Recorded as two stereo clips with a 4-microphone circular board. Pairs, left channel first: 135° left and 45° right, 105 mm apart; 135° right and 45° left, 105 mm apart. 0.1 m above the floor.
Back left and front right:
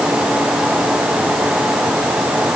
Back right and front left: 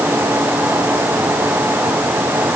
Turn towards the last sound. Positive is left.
No sound to turn to.